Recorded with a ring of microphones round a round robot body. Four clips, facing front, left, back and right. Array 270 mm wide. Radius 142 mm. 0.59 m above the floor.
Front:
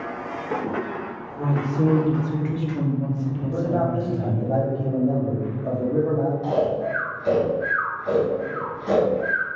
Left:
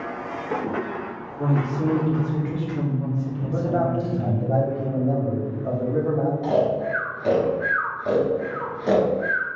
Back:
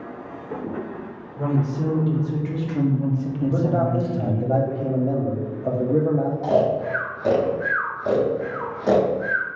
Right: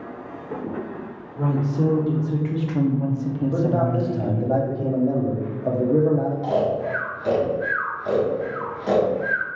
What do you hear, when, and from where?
1.4 s a woman speaking: 60° right, 1.7 m; by 4.5 s straight behind, 1.1 m
3.5 s a man speaking: 125° right, 0.9 m
6.4 s snoring: 160° left, 1.0 m